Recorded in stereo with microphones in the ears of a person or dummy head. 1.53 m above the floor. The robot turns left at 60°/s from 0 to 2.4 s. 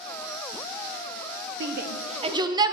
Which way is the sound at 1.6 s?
65° right (ahead or behind).